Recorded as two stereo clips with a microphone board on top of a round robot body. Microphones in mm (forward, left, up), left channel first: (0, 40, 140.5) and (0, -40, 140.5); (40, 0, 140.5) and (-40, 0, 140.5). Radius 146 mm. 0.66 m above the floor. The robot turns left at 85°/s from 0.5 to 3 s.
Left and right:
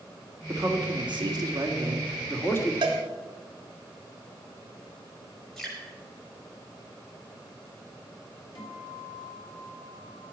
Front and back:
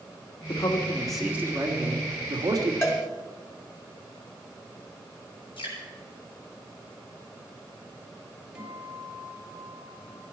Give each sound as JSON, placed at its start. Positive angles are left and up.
{"t": 0.5, "sound": "a man speaking", "azimuth_deg": -35, "distance_m": 2.5}
{"t": 2.8, "sound": "a cowbell", "azimuth_deg": -60, "distance_m": 1.3}
{"t": 5.6, "sound": "dripping", "azimuth_deg": 5, "distance_m": 7.0}
{"t": 8.6, "sound": "a guitar", "azimuth_deg": 100, "distance_m": 3.5}